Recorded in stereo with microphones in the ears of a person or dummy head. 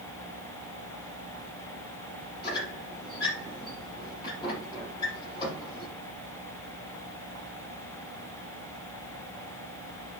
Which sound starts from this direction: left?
A squeak, at 2.4 s.